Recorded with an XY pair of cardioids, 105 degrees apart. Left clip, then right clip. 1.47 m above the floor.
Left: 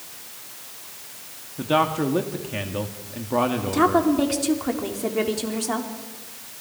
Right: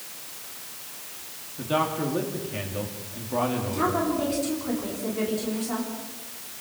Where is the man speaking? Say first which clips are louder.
Left 5 dB; 45° left, 2.5 m.